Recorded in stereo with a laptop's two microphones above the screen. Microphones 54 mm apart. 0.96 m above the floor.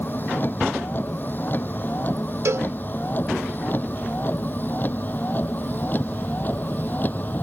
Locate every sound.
0.0 s a vehicle: 35° left (ahead or behind)
2.5 s a cowbell: 65° right (ahead or behind)